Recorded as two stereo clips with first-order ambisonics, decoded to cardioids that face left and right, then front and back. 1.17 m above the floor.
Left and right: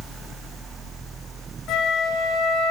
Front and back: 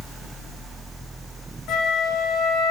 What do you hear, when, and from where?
1.7 s a flute: 40° left, 3 m